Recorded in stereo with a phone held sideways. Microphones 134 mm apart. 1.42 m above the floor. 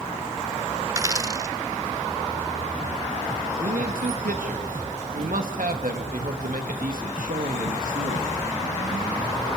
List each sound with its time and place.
0.9 s a dropped coin: 25° right (ahead or behind), 0.7 m
3.6 s a man speaking: 80° right, 1.9 m